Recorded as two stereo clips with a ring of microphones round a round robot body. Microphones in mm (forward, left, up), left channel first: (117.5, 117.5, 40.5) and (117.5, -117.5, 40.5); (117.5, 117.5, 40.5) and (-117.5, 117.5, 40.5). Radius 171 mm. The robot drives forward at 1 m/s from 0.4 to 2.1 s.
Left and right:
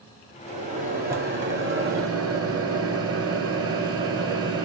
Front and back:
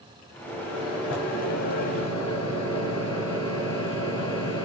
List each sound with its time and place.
0.5 s a microwave: 30° right, 2.5 m; by 4.6 s 75° right, 1.2 m